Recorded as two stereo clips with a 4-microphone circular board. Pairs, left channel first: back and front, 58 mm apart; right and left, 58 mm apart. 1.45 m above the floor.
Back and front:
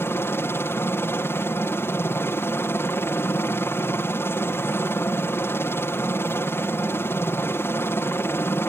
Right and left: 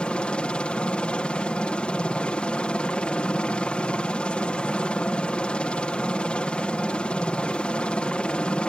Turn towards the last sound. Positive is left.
turn(degrees=-155)